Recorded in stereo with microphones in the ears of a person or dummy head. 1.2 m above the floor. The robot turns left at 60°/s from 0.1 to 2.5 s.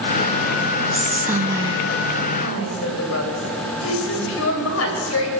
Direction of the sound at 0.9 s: 10° left.